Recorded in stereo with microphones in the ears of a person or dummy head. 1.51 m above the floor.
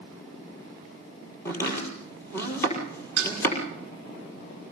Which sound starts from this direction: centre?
Chopping, at 1.4 s.